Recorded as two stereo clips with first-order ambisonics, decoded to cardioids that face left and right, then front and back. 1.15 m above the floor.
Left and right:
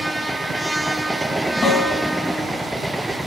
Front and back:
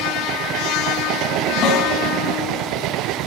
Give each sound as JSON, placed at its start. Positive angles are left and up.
{"t": 1.6, "sound": "a snare drum", "azimuth_deg": 30, "distance_m": 1.4}